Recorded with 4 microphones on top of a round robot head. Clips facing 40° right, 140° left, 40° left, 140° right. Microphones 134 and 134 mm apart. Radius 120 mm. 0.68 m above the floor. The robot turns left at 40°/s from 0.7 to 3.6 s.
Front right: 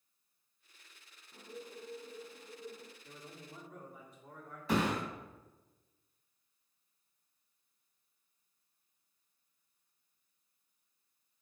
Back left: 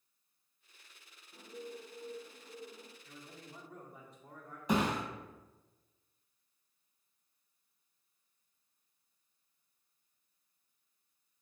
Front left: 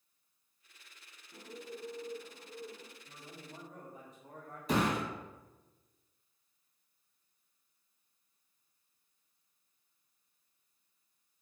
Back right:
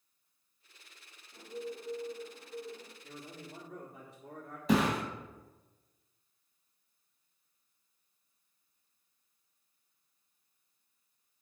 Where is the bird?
20° left, 1.7 m; by 2.9 s 45° right, 1.7 m.